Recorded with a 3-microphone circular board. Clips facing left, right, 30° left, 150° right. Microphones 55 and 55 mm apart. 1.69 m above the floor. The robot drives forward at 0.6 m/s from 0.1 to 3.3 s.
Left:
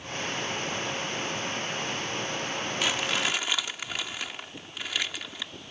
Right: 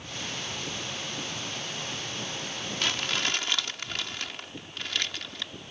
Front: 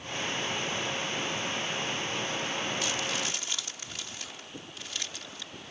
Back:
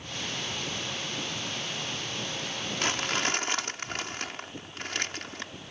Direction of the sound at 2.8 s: 170° left.